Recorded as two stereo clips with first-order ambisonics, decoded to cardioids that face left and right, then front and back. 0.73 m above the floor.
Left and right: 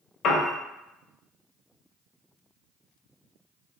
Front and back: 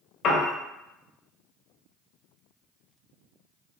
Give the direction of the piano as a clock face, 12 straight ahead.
10 o'clock.